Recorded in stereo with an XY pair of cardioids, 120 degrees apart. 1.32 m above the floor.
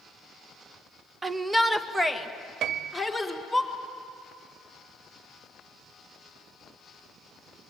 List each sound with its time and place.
1.2 s a shout: 20° right, 1.1 m; by 3.6 s 5° left, 3.5 m
2.6 s a piano: 65° right, 0.6 m